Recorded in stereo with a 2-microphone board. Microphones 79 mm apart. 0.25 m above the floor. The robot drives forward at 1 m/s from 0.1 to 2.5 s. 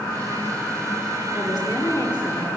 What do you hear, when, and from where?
1.3 s a woman speaking: 50° left (ahead or behind), 6.5 m; by 2.6 s 55° left (ahead or behind), 5.5 m